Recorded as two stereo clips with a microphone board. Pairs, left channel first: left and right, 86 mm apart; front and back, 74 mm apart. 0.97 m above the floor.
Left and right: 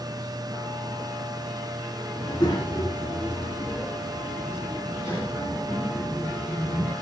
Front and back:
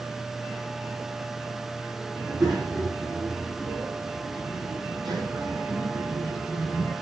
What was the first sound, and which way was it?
A child speaking, 140° left.